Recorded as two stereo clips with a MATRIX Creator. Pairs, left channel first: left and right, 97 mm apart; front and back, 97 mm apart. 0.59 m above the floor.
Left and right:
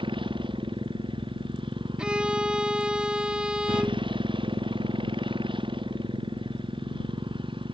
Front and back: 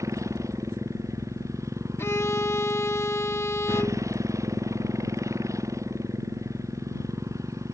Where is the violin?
15° right.